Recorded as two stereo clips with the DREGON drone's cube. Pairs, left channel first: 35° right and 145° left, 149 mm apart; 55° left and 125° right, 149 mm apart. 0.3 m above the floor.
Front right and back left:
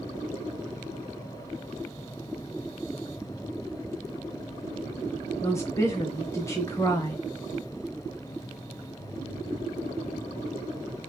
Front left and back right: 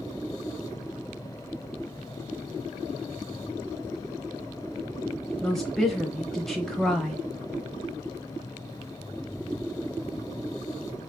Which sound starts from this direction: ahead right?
A woman speaking, at 5.4 s.